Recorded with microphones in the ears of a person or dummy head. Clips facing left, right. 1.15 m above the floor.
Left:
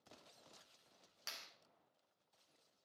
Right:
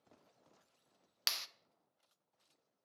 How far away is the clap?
About 0.5 m.